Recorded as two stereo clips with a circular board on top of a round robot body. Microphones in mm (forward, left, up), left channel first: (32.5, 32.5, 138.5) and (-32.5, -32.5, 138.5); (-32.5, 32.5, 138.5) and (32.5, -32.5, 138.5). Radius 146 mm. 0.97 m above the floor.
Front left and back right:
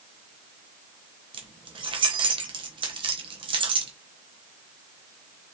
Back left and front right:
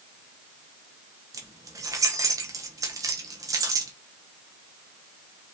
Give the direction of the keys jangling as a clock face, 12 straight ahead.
3 o'clock.